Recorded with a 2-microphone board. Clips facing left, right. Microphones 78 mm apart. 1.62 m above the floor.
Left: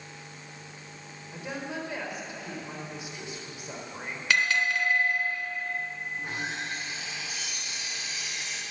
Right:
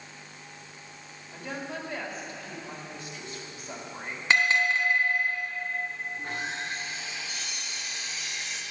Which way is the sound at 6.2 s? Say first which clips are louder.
Left 1 dB; 5° left (ahead or behind).